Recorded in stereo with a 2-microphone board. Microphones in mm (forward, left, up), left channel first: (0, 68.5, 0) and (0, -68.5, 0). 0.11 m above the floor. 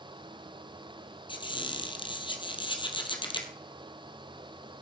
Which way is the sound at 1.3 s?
35° left (ahead or behind).